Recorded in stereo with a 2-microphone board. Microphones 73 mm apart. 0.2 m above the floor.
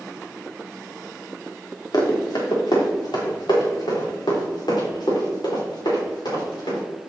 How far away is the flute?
I don't hear a flute.